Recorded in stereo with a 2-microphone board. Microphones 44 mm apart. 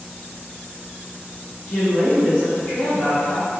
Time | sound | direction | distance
1.7 | a woman speaking | 25° left (ahead or behind) | 1.5 m